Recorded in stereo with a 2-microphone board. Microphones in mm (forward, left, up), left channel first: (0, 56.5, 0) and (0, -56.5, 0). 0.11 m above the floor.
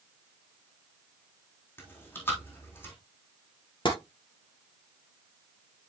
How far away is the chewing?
About 3.5 m.